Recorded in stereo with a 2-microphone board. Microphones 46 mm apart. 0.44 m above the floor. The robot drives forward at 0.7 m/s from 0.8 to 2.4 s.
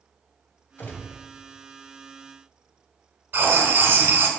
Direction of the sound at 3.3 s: 55° right (ahead or behind).